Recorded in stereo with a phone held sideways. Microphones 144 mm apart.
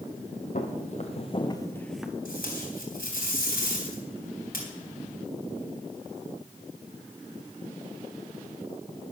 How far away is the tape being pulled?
About 3 m.